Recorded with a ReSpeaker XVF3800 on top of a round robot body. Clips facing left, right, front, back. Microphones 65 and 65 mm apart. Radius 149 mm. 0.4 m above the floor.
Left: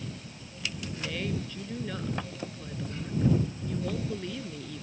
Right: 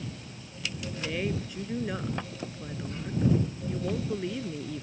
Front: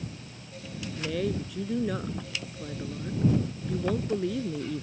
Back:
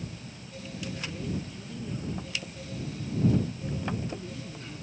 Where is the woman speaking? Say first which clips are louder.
Right 2 dB, front 8 dB; 15° right.